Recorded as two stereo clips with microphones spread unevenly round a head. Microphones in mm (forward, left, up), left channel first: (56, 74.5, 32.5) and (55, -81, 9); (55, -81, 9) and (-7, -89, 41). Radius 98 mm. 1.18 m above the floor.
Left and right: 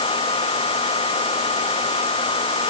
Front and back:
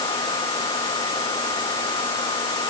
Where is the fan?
35° left.